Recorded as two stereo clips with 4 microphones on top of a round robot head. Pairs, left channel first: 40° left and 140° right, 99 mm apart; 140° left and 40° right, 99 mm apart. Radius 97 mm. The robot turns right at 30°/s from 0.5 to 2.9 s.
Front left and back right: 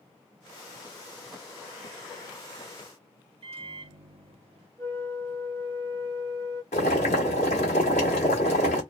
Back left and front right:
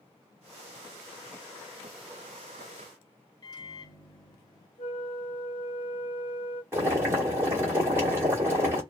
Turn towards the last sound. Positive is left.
turn(degrees=30)